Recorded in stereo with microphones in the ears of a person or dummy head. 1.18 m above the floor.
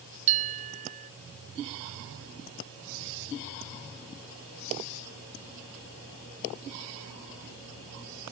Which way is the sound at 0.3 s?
35° right (ahead or behind).